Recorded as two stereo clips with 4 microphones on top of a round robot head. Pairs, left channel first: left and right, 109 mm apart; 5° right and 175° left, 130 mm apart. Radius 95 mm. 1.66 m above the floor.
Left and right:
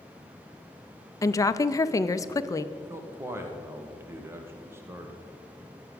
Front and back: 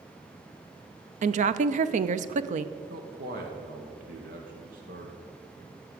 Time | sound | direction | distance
1.2 | a woman speaking | 150° left | 0.6 m
2.8 | a man speaking | 160° right | 1.3 m